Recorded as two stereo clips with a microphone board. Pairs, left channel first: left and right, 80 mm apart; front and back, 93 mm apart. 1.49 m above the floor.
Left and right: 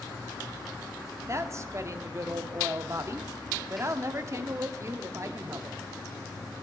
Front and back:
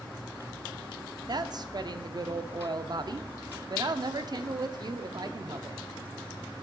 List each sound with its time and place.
1.3 s a woman speaking: 140° right, 0.5 m